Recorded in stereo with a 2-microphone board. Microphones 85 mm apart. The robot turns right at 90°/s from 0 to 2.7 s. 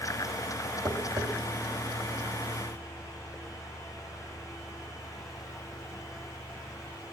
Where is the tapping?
55° right (ahead or behind), 1.5 m; by 1.3 s 60° right (ahead or behind), 1.5 m.